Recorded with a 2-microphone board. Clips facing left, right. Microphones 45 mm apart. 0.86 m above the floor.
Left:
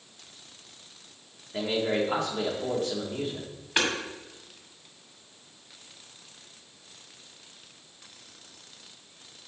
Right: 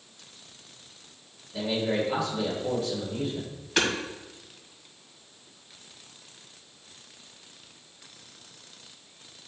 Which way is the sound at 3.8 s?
15° left (ahead or behind).